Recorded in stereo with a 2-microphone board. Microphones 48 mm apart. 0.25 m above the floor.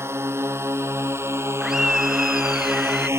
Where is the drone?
65° right (ahead or behind); by 3.2 s 70° right (ahead or behind).